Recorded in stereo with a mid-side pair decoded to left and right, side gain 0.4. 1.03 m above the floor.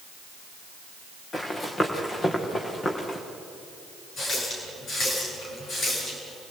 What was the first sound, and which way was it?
Running footsteps, 35° left.